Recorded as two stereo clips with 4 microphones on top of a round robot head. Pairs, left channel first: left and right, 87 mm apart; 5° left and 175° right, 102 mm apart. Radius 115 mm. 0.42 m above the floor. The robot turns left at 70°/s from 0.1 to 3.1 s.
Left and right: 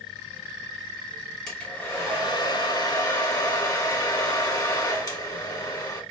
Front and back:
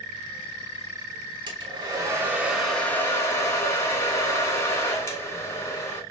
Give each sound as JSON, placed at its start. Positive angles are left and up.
{"t": 1.5, "sound": "a hair dryer", "azimuth_deg": 170, "distance_m": 1.5}